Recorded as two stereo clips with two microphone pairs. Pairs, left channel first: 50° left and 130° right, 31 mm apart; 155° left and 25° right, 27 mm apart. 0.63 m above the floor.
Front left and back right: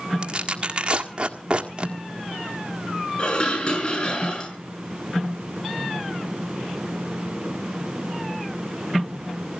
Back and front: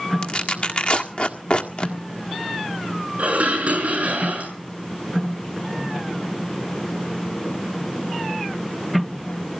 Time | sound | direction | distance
0.2 | tearing paper | straight behind | 1.7 m
3.2 | dishes clattering | straight ahead | 6 m